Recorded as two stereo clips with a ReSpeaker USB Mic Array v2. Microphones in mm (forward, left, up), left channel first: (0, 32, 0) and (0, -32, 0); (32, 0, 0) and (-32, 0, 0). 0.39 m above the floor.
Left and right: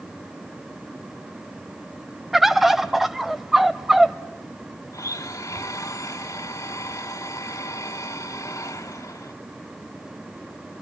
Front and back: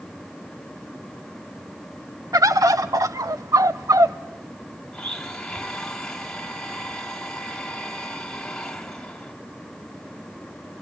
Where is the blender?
80° left, 2 m.